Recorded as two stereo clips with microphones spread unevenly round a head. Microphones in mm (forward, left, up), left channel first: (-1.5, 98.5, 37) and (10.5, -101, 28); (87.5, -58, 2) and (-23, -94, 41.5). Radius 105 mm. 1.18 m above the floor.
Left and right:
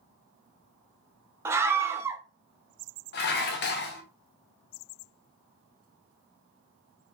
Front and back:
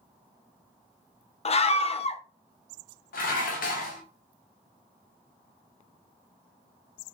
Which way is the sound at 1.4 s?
10° right.